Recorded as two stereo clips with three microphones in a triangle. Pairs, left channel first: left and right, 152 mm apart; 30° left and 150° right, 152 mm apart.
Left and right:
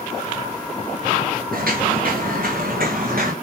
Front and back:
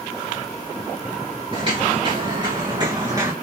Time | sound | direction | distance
1.5 | footsteps | 95° right | 3.5 m